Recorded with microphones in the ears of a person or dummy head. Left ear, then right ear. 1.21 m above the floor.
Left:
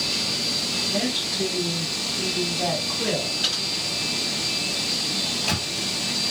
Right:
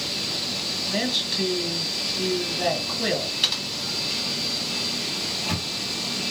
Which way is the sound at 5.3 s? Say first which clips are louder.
Left 2 dB; 80° left.